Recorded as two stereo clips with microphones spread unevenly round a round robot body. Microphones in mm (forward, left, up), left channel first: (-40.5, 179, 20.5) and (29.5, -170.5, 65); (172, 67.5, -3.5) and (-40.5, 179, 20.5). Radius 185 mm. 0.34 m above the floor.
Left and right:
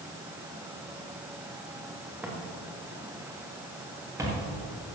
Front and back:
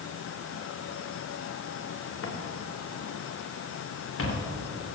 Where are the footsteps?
5° left, 2.5 m.